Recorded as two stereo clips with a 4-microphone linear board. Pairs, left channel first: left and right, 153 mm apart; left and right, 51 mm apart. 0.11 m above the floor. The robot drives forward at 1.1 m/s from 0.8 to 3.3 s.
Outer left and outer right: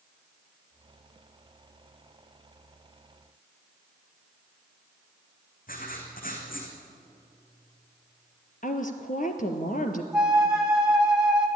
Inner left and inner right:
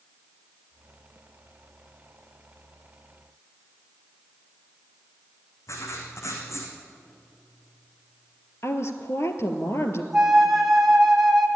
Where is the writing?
65° left (ahead or behind), 4 m.